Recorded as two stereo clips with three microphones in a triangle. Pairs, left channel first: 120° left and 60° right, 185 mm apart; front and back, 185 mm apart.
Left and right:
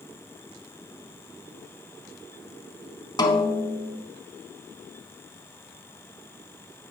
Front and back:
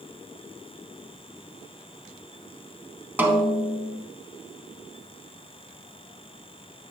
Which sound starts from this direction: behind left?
A snare drum, at 3.2 s.